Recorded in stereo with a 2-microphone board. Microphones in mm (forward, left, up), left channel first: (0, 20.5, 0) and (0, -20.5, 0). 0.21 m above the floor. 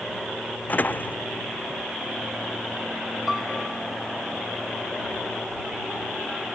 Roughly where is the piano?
Centre.